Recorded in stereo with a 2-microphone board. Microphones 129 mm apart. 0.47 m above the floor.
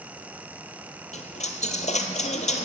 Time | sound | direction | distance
1.1 | a dropped coin | 65° left (ahead or behind) | 1.2 m